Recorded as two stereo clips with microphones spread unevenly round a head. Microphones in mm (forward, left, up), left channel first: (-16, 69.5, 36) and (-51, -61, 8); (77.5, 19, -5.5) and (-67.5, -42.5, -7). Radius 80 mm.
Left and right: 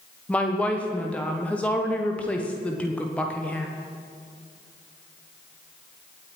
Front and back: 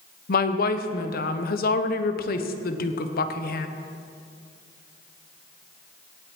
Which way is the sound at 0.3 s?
5° right.